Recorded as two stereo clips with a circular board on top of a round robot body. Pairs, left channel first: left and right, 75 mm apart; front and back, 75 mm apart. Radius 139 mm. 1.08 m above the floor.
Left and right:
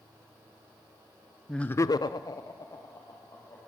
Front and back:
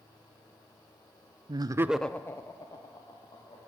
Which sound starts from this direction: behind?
Laughter, at 1.5 s.